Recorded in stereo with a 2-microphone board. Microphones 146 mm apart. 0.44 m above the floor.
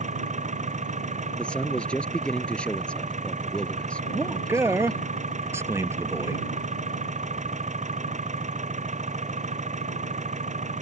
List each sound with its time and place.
0.0 s an engine running: 55° right (ahead or behind)
1.4 s a man speaking: 5° left (ahead or behind)
4.1 s a man speaking: 15° right (ahead or behind)